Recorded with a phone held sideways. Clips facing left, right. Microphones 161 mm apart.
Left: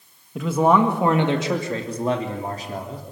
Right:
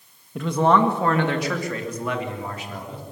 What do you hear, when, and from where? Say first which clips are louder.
0.3 s a man speaking: left 1 dB; centre (ahead or behind), 1.7 m; by 3.0 s 40° left (ahead or behind), 3.5 m